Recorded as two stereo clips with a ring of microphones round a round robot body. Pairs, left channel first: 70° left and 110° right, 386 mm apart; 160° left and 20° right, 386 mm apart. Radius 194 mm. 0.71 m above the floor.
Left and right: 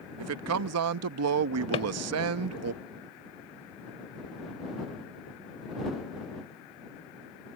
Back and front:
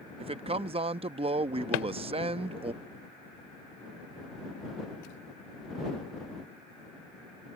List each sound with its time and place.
0.2 s a man speaking: 90° right
1.7 s a drawer: 145° left